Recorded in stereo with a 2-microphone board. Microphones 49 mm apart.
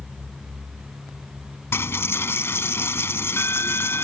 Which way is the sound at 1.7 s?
55° left (ahead or behind).